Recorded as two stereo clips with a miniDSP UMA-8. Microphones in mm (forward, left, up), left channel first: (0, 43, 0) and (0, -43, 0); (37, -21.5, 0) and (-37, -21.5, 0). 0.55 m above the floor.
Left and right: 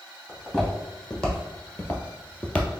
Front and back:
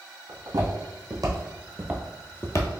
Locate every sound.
0.3 s footsteps: 170° left, 1.8 m; by 2.7 s 15° left, 0.8 m